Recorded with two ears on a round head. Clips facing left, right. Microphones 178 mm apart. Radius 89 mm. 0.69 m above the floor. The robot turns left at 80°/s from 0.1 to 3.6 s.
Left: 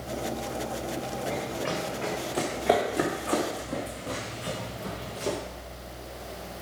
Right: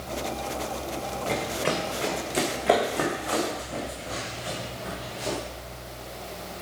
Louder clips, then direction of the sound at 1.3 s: Right 5 dB; 75° right (ahead or behind).